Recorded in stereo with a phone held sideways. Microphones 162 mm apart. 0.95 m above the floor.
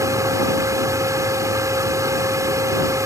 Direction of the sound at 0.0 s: 20° right (ahead or behind).